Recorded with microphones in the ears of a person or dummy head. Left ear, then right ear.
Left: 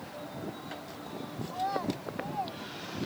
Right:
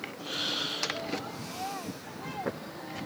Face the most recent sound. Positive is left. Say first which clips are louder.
# left 8 dB
turn(degrees=40)  # may be behind; listen again after turning